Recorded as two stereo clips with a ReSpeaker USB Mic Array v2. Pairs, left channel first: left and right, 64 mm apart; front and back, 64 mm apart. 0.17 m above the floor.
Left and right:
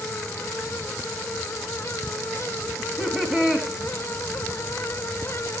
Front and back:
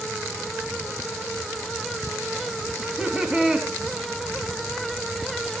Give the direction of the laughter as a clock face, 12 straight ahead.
5 o'clock.